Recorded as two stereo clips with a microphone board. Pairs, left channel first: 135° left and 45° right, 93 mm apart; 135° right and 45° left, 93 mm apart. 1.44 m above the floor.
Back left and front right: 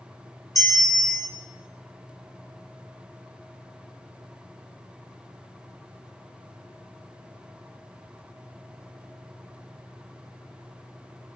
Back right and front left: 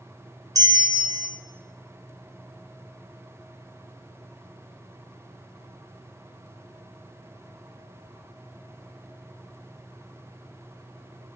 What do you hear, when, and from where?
0.6 s a bell: 90° left, 1.1 m